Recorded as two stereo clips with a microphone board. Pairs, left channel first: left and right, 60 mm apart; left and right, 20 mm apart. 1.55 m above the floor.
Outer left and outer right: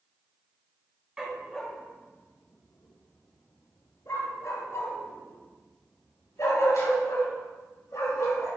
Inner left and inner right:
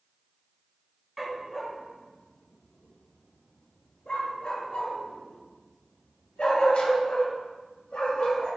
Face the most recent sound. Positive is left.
turn(degrees=65)  # may be behind; listen again after turning